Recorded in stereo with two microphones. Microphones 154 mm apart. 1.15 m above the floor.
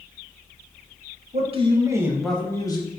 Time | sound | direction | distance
1.3 | a man speaking | 45° right (ahead or behind) | 0.8 m